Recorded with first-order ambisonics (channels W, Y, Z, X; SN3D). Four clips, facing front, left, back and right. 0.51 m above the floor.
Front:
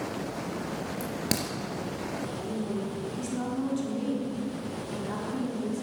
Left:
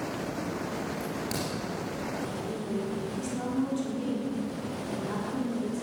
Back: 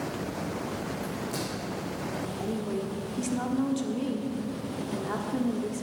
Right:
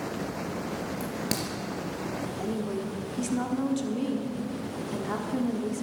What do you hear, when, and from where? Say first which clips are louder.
1.0 s a crack: right 1 dB, front 2 dB; 25° right, 3 m
2.4 s a woman speaking: right 2 dB, back 2 dB; 135° right, 1.3 m